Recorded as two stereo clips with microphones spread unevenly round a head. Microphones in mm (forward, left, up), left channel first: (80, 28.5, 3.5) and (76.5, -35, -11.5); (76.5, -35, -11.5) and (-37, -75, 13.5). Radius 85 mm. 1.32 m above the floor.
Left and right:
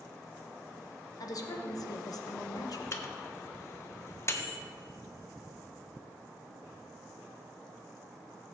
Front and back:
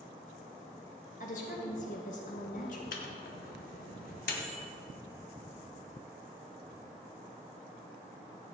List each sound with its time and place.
1.2 s a woman speaking: 65° left, 1.3 m
2.9 s a microwave: 40° left, 1.1 m